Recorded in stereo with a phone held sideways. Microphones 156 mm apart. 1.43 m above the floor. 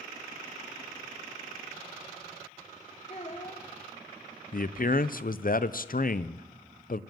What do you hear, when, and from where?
3.1 s a child speaking: 45° left (ahead or behind), 2.5 m
4.5 s a man speaking: 65° left (ahead or behind), 0.5 m